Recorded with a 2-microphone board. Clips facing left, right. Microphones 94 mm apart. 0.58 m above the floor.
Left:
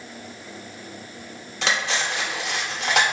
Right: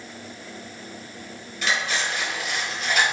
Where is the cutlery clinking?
75° left (ahead or behind), 0.7 m.